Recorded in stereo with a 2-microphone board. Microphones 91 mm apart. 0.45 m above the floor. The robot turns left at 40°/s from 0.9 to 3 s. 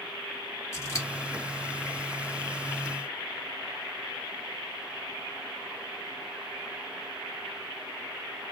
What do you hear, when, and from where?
0.7 s scissors: 35° left (ahead or behind), 1.0 m; by 1.1 s 40° left (ahead or behind), 1.0 m